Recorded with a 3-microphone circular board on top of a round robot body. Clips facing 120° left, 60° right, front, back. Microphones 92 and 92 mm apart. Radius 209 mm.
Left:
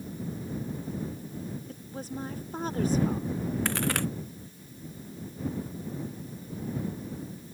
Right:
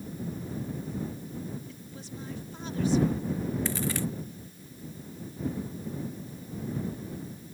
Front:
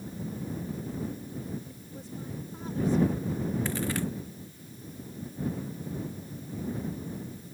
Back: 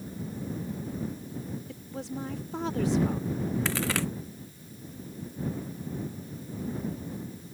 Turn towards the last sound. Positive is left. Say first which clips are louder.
# left 2 dB, back 1 dB
turn(degrees=155)